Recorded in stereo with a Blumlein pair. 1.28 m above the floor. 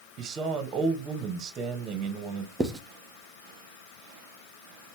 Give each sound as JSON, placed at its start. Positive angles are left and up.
{"t": 0.2, "sound": "a man speaking", "azimuth_deg": -25, "distance_m": 1.2}
{"t": 2.6, "sound": "writing", "azimuth_deg": -10, "distance_m": 0.8}